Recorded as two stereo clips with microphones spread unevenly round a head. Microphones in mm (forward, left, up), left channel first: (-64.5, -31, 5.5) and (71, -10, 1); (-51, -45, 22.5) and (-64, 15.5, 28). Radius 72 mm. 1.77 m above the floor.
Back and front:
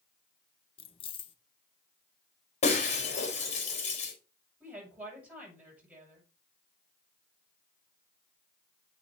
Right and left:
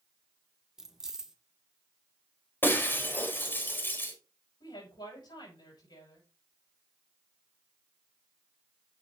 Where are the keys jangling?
170° left, 0.9 m.